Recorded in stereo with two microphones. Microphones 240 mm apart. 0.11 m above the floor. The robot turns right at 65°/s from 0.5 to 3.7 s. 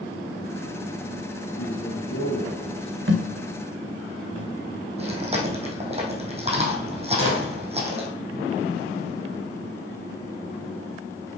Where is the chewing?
25° right (ahead or behind), 1.7 m.